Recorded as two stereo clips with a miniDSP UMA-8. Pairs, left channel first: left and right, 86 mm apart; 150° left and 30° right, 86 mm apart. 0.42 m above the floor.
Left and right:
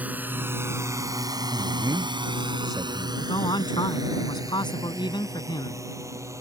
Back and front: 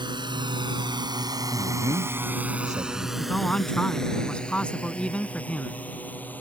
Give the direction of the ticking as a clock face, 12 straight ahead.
I don't hear ticking.